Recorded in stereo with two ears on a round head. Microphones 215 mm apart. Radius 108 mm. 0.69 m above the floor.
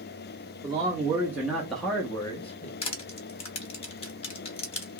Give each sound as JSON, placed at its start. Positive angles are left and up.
{"t": 0.6, "sound": "a man speaking", "side_deg": -15, "distance_m": 1.3}
{"t": 2.8, "sound": "crushing", "side_deg": 25, "distance_m": 1.0}